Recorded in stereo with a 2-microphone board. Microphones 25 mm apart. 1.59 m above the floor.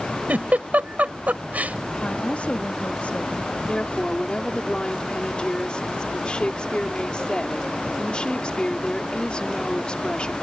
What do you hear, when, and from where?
0.3 s a giggle: 80° right
2.0 s a woman speaking: 60° left (ahead or behind)
3.7 s a woman speaking: 35° left (ahead or behind)